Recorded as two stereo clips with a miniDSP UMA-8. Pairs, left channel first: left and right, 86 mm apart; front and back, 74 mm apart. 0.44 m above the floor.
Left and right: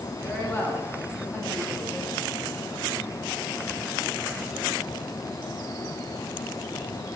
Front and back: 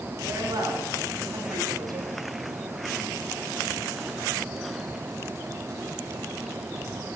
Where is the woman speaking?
155° left, 3.5 m; by 2.1 s 160° left, 2 m.